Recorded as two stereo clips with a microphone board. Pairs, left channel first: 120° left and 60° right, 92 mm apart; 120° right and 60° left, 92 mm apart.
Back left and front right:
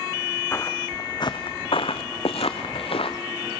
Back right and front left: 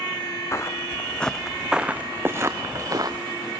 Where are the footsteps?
Straight behind, 1.5 m; by 3.2 s 105° left, 2 m.